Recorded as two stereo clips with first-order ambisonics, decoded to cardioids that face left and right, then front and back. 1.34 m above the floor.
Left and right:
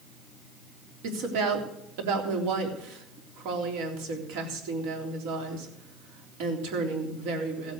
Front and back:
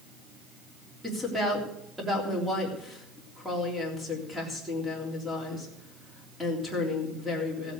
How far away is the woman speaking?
About 3.5 m.